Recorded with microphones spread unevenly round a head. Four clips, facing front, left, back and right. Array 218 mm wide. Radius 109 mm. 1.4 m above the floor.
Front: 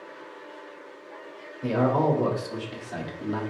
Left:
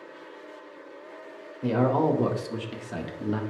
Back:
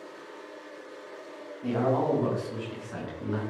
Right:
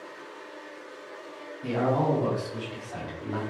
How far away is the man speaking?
About 2 m.